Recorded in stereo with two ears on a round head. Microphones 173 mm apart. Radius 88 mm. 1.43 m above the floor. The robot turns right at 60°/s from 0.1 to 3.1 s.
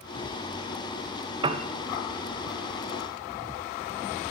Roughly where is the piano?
Right.